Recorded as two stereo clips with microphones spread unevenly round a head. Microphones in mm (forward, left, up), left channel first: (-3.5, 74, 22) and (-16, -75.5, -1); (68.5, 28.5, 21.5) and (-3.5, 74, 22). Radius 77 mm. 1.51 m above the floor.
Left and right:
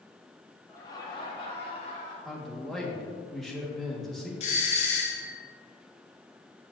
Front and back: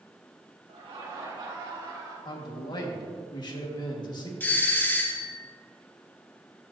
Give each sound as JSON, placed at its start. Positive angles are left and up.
{"t": 0.7, "sound": "laughter", "azimuth_deg": 155, "distance_m": 2.0}
{"t": 2.2, "sound": "a man speaking", "azimuth_deg": 0, "distance_m": 1.6}
{"t": 4.4, "sound": "a doorbell", "azimuth_deg": 35, "distance_m": 1.3}